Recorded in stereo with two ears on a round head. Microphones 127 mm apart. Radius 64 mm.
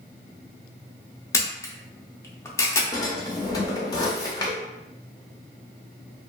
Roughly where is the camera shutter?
Left.